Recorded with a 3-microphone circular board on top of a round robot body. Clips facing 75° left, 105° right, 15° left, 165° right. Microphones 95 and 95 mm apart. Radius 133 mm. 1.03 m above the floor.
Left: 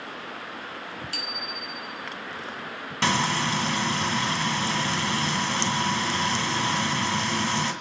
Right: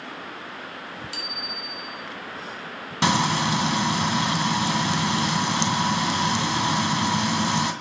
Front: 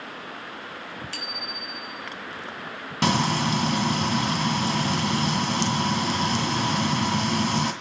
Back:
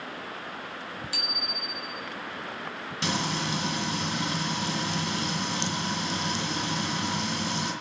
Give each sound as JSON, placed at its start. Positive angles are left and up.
{"t": 1.1, "sound": "a bicycle bell", "azimuth_deg": 115, "distance_m": 4.0}
{"t": 3.0, "sound": "frying", "azimuth_deg": -30, "distance_m": 1.9}